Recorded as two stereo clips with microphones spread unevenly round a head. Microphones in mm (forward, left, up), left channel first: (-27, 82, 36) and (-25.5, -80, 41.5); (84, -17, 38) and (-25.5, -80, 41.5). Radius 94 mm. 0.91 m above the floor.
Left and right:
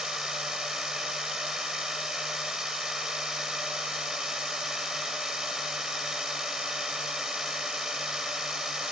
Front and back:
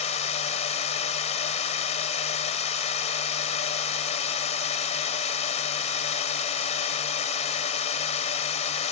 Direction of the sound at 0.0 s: Straight ahead.